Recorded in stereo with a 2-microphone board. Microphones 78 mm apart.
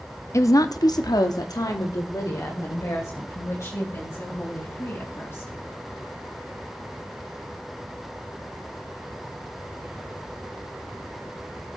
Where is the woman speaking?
40° left (ahead or behind), 0.8 m; by 5.5 s 35° left (ahead or behind), 5.5 m.